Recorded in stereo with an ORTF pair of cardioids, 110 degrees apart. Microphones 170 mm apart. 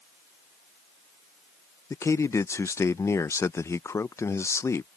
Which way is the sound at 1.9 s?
15° left.